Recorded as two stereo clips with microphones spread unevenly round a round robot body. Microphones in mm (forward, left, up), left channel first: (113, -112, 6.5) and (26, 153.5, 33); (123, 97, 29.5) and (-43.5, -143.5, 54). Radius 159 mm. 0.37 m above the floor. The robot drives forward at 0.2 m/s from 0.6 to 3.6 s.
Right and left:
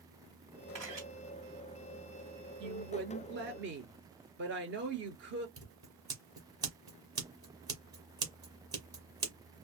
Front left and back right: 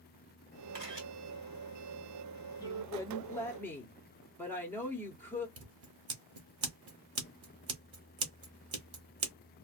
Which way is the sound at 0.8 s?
170° right.